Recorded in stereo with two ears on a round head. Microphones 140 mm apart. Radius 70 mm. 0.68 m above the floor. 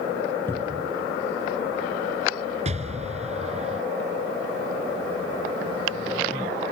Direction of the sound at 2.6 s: 45° right (ahead or behind).